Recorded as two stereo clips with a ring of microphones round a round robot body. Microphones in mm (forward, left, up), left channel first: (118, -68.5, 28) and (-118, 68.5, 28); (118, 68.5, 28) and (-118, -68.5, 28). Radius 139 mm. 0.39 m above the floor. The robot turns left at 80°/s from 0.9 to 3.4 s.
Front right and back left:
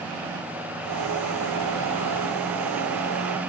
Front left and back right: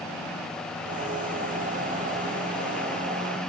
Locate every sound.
Only background noise.